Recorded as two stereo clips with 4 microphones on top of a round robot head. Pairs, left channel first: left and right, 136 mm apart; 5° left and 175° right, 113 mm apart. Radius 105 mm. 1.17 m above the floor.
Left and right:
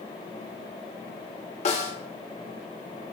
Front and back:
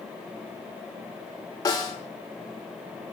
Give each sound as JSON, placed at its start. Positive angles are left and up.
{"t": 1.6, "sound": "a snare drum", "azimuth_deg": 60, "distance_m": 1.2}